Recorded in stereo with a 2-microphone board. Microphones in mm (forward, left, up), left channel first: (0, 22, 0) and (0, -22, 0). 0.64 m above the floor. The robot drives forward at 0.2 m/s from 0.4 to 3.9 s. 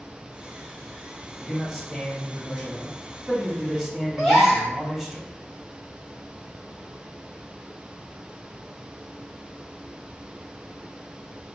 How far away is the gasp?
About 1.8 m.